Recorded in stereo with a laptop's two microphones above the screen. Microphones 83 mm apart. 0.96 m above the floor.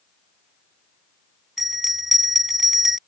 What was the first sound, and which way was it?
A bell, 5° right (ahead or behind).